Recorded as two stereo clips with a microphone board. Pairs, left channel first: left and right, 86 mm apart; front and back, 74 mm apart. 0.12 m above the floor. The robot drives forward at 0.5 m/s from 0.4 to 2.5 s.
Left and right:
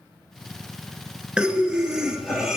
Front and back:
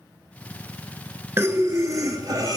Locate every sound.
1.4 s breathing: 160° right, 0.6 m; by 2.6 s 175° right, 1.1 m